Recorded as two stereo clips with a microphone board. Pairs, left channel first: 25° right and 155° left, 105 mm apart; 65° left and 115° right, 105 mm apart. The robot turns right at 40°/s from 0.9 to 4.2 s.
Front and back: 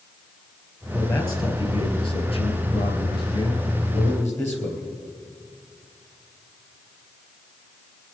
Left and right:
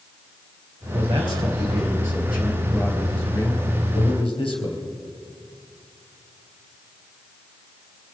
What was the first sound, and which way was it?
A man speaking, 90° right.